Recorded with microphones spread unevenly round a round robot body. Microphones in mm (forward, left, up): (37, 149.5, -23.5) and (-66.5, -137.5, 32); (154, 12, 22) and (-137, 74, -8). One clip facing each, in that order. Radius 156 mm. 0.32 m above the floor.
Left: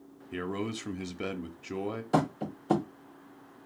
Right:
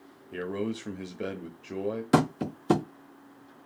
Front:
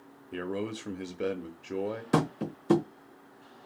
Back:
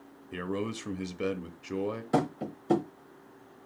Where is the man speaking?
105° left, 0.9 m.